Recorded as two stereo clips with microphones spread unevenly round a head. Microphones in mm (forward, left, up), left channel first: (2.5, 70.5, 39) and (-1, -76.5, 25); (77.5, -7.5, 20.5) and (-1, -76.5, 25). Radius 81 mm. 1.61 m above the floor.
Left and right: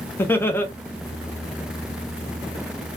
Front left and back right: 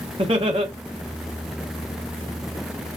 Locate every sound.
0.2 s laughter: 165° left, 1.0 m